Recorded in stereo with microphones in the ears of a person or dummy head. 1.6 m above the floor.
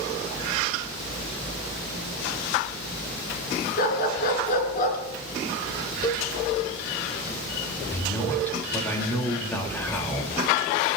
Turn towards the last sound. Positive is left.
turn(degrees=15)  # may be behind; listen again after turning